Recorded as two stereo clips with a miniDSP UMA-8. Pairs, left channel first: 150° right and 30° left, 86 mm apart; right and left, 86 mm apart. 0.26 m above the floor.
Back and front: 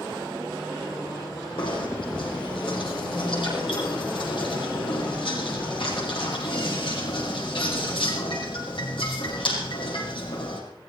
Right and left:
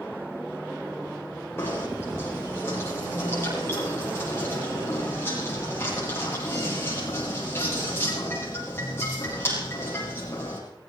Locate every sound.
1.6 s knocking: 155° right, 7.5 m